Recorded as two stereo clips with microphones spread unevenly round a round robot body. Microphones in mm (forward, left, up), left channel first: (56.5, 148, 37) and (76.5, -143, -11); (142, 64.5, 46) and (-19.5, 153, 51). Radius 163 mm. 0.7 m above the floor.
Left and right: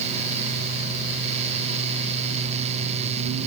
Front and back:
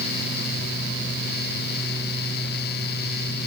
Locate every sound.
Only background noise.